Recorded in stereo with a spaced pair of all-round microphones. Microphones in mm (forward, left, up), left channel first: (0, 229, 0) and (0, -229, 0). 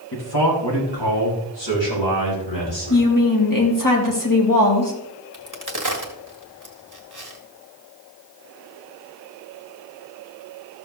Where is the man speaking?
55° left (ahead or behind), 2.5 m; by 3.1 s 80° left, 6 m.